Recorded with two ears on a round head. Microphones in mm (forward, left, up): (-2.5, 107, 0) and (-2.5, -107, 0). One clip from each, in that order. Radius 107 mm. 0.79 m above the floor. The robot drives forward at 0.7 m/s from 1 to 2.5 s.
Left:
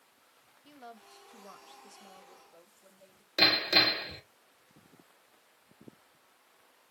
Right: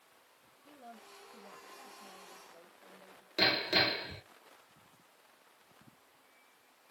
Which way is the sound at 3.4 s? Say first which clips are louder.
Left 5 dB; 15° left (ahead or behind).